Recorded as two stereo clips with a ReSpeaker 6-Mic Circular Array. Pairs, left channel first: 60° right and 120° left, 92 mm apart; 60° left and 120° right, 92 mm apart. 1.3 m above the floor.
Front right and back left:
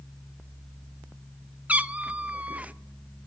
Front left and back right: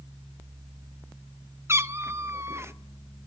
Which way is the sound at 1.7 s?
170° right.